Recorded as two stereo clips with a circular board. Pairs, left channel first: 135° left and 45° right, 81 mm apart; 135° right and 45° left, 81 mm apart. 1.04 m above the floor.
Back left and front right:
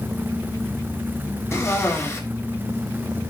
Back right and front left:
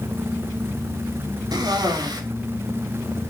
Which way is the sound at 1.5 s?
75° left.